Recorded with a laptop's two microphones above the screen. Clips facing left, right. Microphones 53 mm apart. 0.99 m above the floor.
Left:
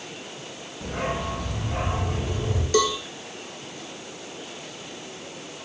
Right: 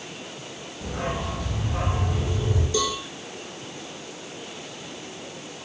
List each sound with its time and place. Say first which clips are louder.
0.8 s a dog barking: left 1 dB; 50° left (ahead or behind), 6.5 m
2.7 s a cowbell: left 6 dB; 70° left (ahead or behind), 3.5 m